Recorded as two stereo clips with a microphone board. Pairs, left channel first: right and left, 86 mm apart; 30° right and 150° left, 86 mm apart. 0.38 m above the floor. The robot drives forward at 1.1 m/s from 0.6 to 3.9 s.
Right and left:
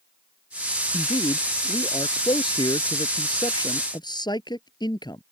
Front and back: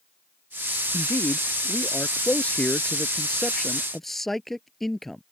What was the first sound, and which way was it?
A man speaking, 90° right.